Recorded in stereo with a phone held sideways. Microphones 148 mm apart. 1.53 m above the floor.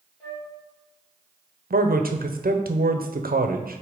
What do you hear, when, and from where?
0.2 s a flute: 5° left (ahead or behind), 2.5 m
1.7 s a man speaking: 85° right, 0.8 m